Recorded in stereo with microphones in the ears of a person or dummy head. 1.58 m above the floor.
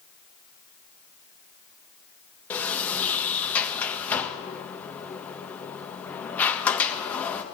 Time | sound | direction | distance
2.5 | a sliding door | 10° left (ahead or behind) | 0.8 m